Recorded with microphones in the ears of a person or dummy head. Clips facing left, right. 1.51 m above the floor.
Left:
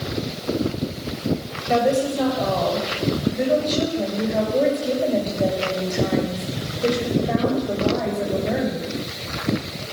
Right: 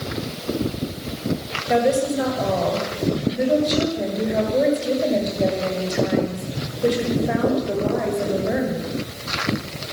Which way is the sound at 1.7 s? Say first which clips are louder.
Right 1 dB; 15° right (ahead or behind).